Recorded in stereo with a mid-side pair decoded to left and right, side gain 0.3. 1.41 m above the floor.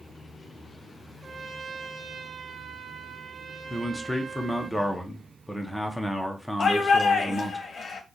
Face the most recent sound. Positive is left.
turn(degrees=70)